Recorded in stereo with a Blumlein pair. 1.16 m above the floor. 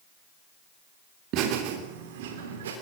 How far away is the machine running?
I don't hear a machine running.